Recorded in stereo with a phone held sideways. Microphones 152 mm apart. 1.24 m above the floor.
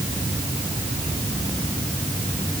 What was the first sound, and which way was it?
Only background noise.